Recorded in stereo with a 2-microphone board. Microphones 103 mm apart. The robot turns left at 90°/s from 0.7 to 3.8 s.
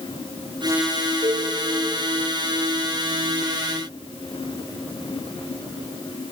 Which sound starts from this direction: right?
A cowbell, at 1.2 s.